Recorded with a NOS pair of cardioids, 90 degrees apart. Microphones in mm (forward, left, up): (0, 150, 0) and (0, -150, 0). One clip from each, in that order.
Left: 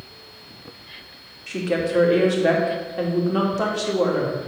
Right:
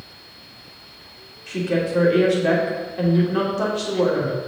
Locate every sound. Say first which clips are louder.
1.5 s a woman speaking: even; 20° left, 3 m